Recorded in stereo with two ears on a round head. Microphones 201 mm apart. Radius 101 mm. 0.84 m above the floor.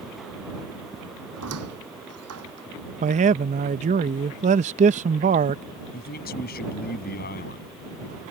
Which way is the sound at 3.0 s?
30° right (ahead or behind).